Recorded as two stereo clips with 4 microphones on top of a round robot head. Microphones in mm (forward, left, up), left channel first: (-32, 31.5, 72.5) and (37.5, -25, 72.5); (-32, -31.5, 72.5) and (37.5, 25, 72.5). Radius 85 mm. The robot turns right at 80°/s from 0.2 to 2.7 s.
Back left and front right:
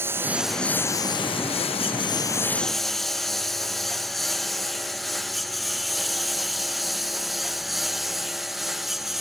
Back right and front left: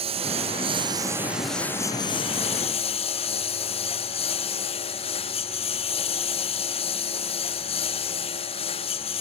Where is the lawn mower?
25° left; by 9.2 s 125° right.